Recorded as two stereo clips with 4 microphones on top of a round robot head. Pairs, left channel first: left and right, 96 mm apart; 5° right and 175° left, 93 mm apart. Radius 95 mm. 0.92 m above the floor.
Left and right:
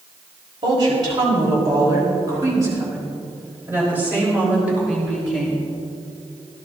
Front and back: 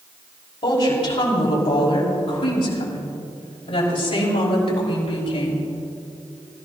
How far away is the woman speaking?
About 5 m.